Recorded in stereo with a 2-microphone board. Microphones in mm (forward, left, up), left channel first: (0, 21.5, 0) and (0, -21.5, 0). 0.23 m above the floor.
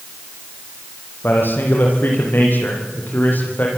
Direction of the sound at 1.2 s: 55° left (ahead or behind).